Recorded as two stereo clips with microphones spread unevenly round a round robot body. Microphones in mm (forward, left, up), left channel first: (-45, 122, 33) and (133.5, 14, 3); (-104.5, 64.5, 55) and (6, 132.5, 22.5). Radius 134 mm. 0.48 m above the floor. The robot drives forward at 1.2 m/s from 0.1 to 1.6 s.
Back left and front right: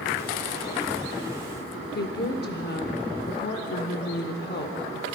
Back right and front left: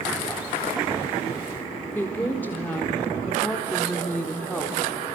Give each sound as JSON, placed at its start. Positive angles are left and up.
{"t": 1.9, "sound": "a woman speaking", "azimuth_deg": 125, "distance_m": 1.7}